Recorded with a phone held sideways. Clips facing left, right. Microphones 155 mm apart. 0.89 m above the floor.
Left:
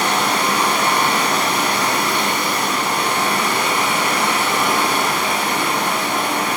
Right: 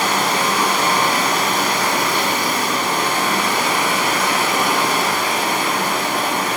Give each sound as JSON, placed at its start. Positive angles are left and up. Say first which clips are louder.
{"t": 0.0, "sound": "running water", "louder": "even", "side_deg": -45, "distance_m": 1.3}